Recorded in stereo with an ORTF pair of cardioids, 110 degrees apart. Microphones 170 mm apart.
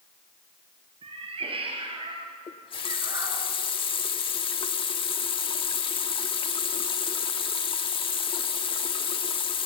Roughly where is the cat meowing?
Ahead right.